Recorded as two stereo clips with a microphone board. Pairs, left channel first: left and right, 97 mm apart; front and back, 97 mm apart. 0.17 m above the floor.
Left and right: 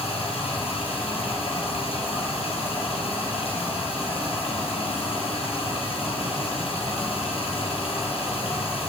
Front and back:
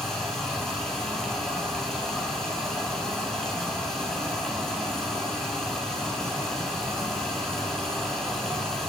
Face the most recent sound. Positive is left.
turn(degrees=85)